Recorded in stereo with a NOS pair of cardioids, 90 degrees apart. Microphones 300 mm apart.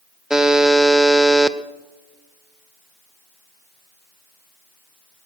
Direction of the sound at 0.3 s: Straight ahead.